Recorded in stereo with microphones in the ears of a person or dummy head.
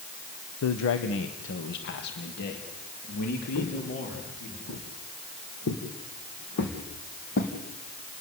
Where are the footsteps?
65° left (ahead or behind), 4 m; by 7.5 s 45° left (ahead or behind), 3.5 m.